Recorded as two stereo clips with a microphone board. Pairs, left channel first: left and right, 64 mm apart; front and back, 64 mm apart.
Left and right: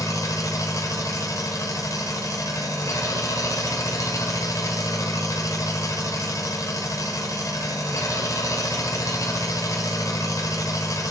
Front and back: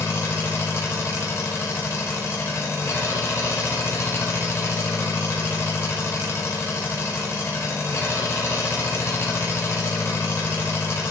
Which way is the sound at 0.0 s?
50° left.